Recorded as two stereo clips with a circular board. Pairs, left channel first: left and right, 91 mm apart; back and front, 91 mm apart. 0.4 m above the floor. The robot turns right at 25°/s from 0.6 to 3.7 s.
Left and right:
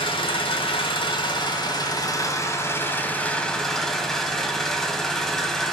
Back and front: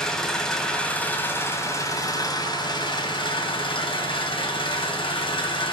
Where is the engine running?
100° left, 1.3 m; by 5.7 s 175° left, 1.3 m.